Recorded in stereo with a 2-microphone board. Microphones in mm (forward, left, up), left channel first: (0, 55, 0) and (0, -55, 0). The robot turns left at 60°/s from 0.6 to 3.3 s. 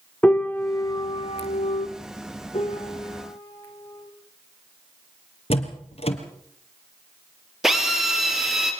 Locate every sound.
0.2 s a piano: 165° left, 1.3 m; by 1.9 s 90° left, 1.3 m
2.5 s a piano: 70° left, 4 m; by 4.1 s 25° left, 4 m
5.5 s a door slam: 65° left (ahead or behind), 2.5 m
7.6 s a drill: 5° right (ahead or behind), 3.5 m